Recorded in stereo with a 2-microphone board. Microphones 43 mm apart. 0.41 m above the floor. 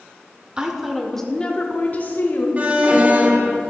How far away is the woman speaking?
About 0.8 m.